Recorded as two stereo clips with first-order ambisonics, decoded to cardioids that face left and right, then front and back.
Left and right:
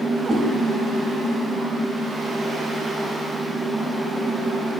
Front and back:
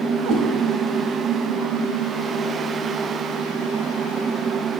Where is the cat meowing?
155° right, 4.5 m.